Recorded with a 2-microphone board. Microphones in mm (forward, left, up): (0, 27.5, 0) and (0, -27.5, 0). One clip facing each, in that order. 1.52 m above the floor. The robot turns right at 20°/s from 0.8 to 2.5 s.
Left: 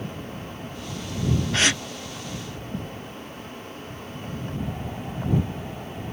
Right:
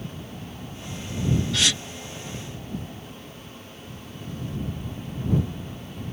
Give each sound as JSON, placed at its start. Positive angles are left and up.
{"t": 1.5, "sound": "a gasp", "side_deg": 40}